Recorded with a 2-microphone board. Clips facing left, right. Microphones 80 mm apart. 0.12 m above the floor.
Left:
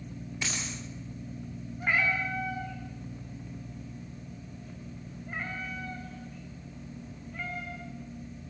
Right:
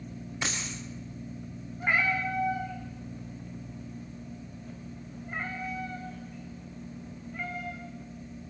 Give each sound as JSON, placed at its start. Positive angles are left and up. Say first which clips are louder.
{"t": 0.4, "sound": "a dropped coin", "louder": "right 2 dB", "side_deg": -40, "distance_m": 7.5}
{"t": 1.8, "sound": "a cat meowing", "louder": "right 1 dB", "side_deg": -5, "distance_m": 5.5}